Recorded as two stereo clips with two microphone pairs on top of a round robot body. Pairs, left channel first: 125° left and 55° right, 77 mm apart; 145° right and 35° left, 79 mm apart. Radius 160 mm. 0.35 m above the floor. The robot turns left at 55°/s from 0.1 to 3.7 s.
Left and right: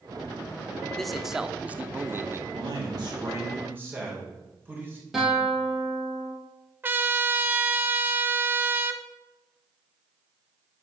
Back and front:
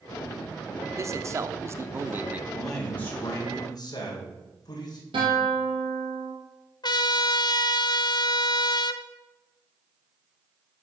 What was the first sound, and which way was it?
A man speaking, 50° left.